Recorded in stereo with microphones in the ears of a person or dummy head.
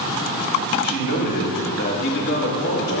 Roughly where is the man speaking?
Left.